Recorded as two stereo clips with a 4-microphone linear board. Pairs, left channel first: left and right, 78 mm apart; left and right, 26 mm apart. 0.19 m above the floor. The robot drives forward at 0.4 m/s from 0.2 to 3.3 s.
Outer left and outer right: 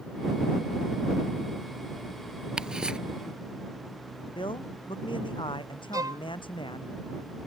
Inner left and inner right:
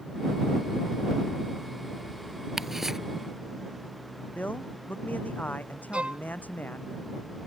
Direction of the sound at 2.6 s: 10° right (ahead or behind).